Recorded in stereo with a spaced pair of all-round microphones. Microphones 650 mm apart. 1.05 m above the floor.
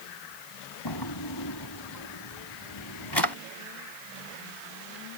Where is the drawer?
35° left (ahead or behind).